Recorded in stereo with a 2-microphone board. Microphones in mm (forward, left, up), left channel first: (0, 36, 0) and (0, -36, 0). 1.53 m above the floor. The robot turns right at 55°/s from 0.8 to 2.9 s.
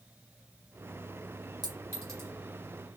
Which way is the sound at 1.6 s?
65° right (ahead or behind).